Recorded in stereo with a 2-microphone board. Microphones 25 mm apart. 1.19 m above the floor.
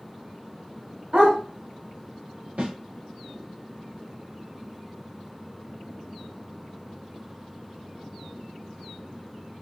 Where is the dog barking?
50° right (ahead or behind), 3 m.